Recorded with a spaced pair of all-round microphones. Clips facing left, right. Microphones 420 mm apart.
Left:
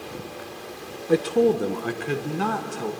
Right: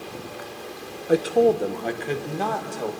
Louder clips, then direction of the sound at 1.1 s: Right 1 dB; 10° left (ahead or behind).